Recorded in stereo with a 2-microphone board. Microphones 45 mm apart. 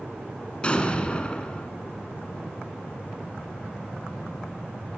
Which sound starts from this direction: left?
An explosion, at 0.6 s.